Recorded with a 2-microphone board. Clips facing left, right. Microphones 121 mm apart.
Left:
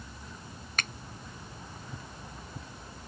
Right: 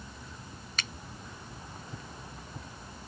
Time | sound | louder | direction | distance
0.8 | a finger snap | left 4 dB | 55° left (ahead or behind) | ?